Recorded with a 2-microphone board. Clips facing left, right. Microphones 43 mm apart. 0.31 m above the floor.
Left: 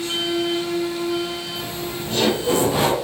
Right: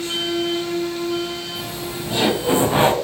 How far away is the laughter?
About 1.9 m.